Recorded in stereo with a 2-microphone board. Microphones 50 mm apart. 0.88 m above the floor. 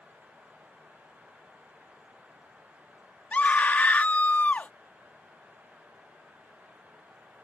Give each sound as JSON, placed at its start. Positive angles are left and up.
{"t": 3.3, "sound": "a scream", "side_deg": 35}